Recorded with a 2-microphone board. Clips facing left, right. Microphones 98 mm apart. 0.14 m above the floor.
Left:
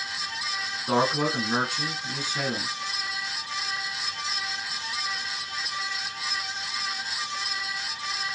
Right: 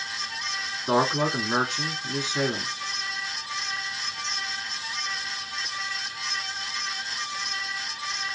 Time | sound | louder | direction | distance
0.9 | a man speaking | right 1 dB | 20° right (ahead or behind) | 1.1 m